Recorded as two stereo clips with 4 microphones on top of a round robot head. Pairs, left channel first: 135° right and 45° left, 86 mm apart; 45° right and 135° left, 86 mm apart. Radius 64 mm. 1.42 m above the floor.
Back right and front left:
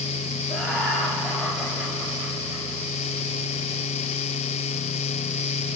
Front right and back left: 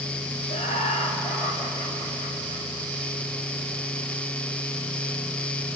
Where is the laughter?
45° right, 4 m; by 2.7 s 35° right, 6.5 m.